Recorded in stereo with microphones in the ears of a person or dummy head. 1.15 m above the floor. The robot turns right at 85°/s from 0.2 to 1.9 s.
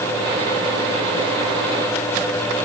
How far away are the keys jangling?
No keys jangling in this recording.